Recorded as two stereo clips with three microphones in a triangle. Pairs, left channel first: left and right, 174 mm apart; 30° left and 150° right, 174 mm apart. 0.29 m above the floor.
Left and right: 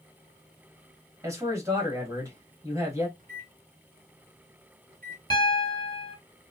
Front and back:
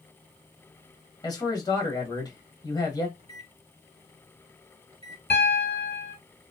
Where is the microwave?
100° right, 1.0 m.